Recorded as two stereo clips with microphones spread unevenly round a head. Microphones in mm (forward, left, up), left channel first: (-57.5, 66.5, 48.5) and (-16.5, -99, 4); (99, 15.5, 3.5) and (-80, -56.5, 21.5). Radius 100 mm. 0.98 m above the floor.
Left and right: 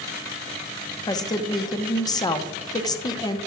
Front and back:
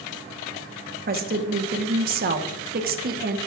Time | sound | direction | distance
1.1 | a woman speaking | 175° left | 0.8 m